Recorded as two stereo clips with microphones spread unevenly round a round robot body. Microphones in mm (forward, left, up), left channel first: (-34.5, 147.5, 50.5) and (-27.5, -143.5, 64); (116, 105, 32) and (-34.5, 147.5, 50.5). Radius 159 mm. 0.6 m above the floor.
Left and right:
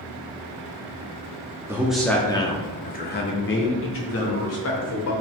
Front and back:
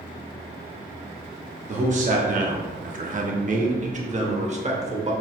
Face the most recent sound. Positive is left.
turn(degrees=115)